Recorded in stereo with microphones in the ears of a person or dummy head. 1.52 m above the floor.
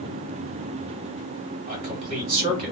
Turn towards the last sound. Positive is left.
turn(degrees=-30)  # may be behind; listen again after turning